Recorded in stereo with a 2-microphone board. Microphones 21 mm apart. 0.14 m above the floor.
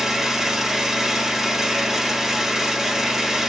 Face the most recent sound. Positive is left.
turn(degrees=-15)  # may be behind; listen again after turning